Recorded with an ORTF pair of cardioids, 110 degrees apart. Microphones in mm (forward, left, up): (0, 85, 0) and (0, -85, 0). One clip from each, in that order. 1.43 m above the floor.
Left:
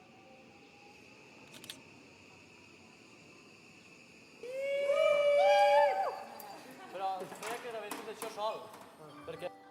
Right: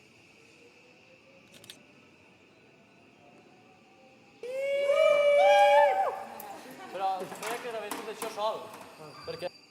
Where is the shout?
25° right.